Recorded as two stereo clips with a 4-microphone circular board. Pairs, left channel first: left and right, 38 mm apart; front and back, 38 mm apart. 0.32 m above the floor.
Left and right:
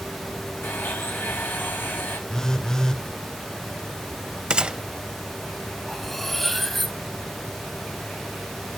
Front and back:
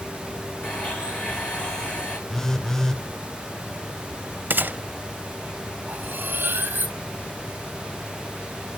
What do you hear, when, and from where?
0.6 s a blender: 60° left, 8.5 m
2.3 s a phone buzzing: 45° left, 0.6 m
4.5 s a gunshot: 155° right, 0.5 m
5.9 s cutlery clinking: 175° left, 1.2 m